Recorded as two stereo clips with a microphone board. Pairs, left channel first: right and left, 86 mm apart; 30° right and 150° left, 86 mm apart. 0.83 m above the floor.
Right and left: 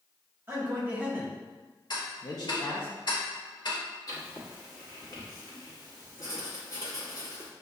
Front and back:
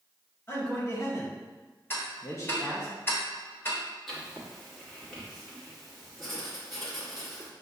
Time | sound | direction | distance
0.5 | a man speaking | 30° left | 1.4 m
1.9 | ticking | 90° right | 1.3 m
4.1 | writing | 120° right | 1.3 m